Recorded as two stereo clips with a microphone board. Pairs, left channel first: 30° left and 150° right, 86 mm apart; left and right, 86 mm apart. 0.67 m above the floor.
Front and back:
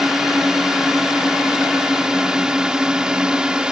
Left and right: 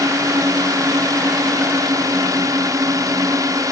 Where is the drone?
65° right; by 3.7 s 75° right.